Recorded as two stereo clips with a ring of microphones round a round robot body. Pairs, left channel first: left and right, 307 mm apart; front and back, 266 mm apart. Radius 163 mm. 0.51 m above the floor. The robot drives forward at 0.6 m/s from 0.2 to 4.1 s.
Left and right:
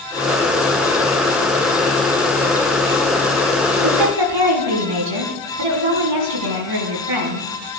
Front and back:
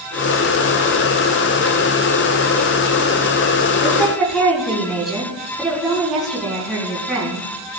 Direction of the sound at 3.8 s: 90° right.